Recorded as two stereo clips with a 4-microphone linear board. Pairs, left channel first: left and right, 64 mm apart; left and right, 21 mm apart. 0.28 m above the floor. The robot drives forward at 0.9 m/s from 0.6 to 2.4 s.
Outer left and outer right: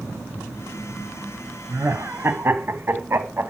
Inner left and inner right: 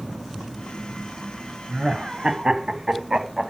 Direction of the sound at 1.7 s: 45° right (ahead or behind).